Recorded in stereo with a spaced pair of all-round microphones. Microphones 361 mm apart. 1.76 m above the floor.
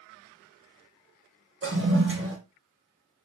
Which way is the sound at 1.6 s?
40° right (ahead or behind).